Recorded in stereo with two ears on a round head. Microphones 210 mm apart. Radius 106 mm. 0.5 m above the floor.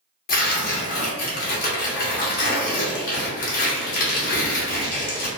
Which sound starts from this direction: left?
Tearing paper, at 0.3 s.